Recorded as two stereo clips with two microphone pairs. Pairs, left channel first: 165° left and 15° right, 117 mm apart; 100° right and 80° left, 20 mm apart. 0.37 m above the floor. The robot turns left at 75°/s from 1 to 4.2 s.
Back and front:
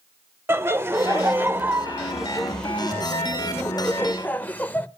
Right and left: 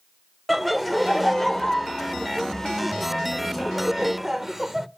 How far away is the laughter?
About 0.8 m.